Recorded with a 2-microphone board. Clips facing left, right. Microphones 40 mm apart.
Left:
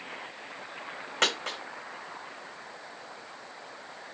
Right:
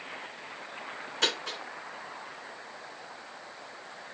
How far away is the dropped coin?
About 3 m.